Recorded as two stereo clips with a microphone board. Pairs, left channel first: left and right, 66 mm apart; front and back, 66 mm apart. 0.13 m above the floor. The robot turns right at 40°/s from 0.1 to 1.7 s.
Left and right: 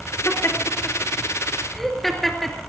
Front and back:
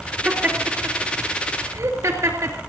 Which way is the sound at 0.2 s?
120° left.